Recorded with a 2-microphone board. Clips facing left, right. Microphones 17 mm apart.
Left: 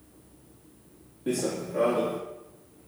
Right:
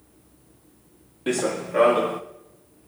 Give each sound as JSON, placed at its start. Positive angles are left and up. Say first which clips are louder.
{"t": 1.3, "sound": "running footsteps", "louder": "right 4 dB", "side_deg": -80, "distance_m": 0.6}